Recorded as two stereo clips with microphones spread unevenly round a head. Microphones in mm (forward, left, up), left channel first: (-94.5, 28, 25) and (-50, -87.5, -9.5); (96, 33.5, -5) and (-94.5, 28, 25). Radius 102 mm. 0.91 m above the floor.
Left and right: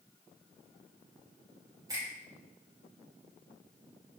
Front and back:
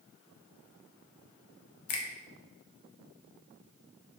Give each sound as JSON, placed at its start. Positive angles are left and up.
{"t": 1.9, "sound": "a finger snap", "azimuth_deg": 0, "distance_m": 0.8}